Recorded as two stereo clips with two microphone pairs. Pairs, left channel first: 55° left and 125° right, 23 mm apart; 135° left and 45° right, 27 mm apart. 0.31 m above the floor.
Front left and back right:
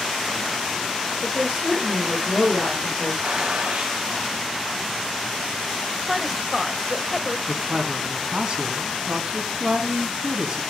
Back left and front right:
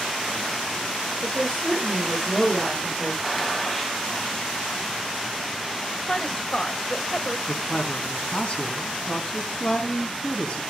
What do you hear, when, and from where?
1.2 s a woman speaking: 50° left, 9 m
3.2 s a gunshot: 145° right, 2 m
6.1 s a woman speaking: 150° left, 1.0 m
7.5 s a man speaking: straight behind, 3 m